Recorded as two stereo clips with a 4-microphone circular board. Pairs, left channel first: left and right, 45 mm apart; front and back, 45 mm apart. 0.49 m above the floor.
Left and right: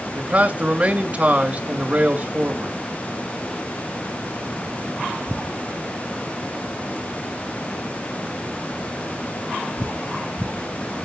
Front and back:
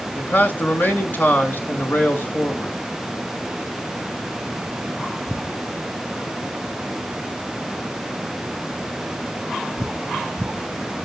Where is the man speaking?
35° right, 2 m.